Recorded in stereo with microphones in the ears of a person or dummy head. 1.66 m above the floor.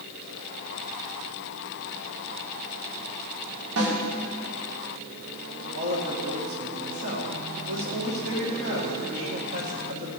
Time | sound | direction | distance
3.8 | a snare drum | 70° right (ahead or behind) | 2.5 m
5.7 | a woman speaking | 60° right (ahead or behind) | 1.9 m